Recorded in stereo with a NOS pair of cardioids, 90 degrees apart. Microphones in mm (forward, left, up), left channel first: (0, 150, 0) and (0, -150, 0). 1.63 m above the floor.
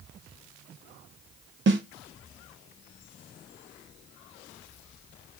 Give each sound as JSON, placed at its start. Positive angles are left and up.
{"t": 1.7, "sound": "a snare drum", "azimuth_deg": -40, "distance_m": 1.0}